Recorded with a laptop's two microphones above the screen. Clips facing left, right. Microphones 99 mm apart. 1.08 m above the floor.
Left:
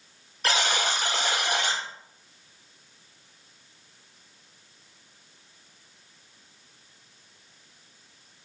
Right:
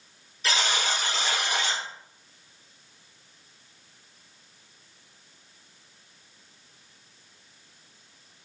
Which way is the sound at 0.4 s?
55° left (ahead or behind).